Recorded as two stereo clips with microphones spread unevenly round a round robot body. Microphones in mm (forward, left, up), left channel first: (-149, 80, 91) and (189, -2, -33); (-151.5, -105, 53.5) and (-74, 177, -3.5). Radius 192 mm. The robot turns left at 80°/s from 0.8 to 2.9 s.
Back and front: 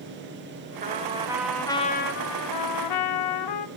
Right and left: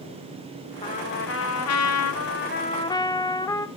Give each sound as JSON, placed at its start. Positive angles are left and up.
{"t": 0.8, "sound": "a trumpet", "azimuth_deg": -25, "distance_m": 1.1}